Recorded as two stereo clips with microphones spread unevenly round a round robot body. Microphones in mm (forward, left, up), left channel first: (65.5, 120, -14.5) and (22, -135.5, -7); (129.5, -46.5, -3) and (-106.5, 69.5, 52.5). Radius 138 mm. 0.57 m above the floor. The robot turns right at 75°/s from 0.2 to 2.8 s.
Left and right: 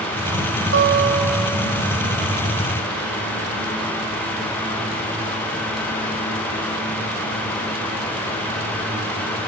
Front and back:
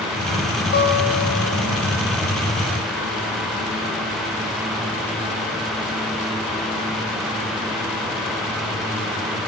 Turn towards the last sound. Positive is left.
turn(degrees=85)